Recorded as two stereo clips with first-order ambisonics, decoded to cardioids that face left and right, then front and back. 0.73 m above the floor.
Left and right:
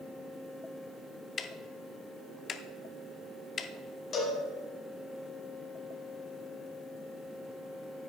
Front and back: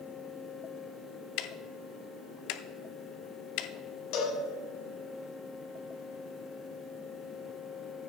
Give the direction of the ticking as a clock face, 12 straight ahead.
11 o'clock.